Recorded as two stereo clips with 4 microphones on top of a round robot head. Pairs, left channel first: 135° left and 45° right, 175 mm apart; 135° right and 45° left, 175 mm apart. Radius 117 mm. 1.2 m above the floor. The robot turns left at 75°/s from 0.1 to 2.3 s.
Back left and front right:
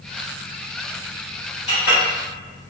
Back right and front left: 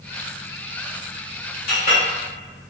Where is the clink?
170° right, 1.6 m; by 2.0 s 165° left, 1.6 m.